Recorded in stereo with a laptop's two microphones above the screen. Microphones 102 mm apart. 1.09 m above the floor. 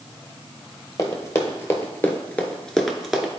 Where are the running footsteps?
30° left (ahead or behind), 1.7 m; by 3.3 s 5° right (ahead or behind), 1.0 m.